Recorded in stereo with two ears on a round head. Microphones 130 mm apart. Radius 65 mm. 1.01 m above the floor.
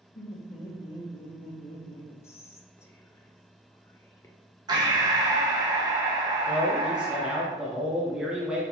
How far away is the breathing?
About 0.8 m.